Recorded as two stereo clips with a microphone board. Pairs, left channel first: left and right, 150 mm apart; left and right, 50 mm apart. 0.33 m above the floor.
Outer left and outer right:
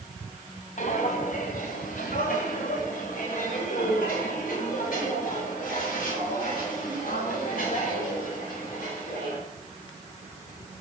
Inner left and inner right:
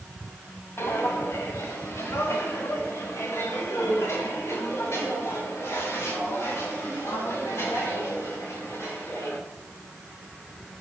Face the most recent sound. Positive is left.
turn(degrees=85)